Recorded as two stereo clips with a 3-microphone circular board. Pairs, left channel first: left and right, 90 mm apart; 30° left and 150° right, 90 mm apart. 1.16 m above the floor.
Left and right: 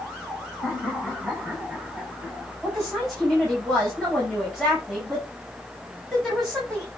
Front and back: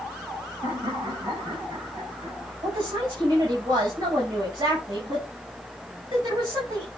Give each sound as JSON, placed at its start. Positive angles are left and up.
{"t": 0.6, "sound": "laughter", "azimuth_deg": -175, "distance_m": 6.5}
{"t": 2.6, "sound": "a woman speaking", "azimuth_deg": 180, "distance_m": 6.5}